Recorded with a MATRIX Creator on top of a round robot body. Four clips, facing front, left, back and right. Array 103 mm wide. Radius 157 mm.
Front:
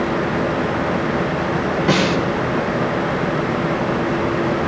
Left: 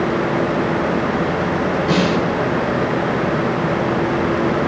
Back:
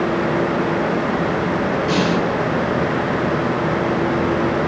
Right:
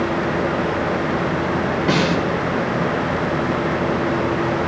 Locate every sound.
1.9 s a snare drum: 20° right, 3 m